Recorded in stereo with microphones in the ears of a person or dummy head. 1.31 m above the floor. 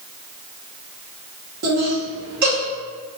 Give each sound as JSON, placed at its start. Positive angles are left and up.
{"t": 1.6, "sound": "laughter", "side_deg": -55, "distance_m": 1.2}